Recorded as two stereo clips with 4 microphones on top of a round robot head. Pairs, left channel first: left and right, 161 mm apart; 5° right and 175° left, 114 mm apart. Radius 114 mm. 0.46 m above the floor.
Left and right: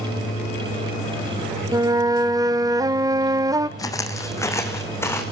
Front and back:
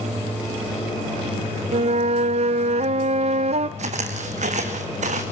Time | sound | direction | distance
1.7 | a flute | 160° right | 0.8 m
3.8 | footsteps | 160° left | 2.0 m